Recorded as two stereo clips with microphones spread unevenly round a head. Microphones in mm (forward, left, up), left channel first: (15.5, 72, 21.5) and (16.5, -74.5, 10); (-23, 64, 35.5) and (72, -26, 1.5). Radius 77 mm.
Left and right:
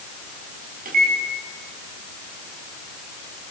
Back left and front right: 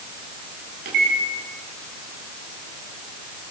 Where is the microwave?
60° right, 7.5 m.